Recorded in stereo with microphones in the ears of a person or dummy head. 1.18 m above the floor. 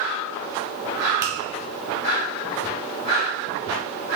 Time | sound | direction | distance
1.2 | a finger snap | 20° right (ahead or behind) | 0.7 m